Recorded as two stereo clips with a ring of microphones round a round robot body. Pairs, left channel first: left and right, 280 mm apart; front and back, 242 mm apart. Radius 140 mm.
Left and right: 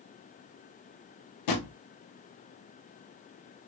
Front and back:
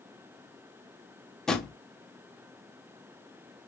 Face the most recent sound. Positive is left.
turn(degrees=90)